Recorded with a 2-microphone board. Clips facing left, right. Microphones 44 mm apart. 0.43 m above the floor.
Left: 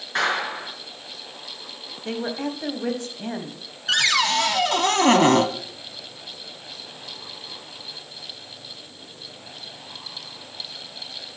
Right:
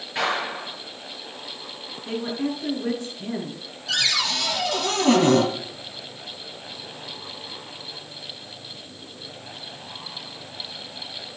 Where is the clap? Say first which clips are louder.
Left 2 dB; 80° left, 5 m.